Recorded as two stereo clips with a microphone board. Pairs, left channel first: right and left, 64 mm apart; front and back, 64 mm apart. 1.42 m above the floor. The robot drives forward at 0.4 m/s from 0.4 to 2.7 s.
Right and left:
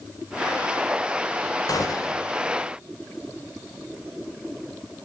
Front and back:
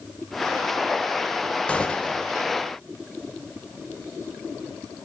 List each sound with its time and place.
1.7 s a gunshot: 70° right, 4 m; by 2.3 s 75° right, 3.5 m